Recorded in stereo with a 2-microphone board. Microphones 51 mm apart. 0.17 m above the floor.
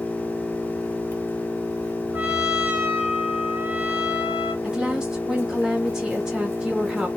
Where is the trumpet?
40° right (ahead or behind), 0.9 m.